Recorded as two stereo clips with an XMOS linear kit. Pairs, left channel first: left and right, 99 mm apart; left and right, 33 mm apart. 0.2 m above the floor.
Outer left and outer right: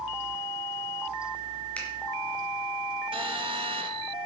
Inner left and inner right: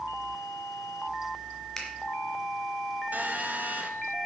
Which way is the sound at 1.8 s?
15° left (ahead or behind).